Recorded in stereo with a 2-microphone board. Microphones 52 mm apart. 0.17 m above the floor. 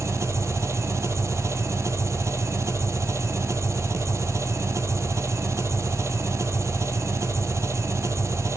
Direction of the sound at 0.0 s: 70° right (ahead or behind).